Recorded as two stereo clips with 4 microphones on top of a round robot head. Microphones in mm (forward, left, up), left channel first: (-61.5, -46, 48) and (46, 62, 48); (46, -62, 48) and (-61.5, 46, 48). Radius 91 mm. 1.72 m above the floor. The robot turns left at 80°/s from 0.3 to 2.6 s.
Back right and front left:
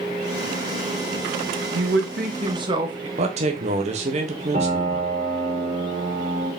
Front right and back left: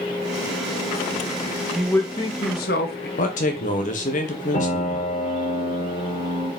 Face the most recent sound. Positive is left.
turn(degrees=-5)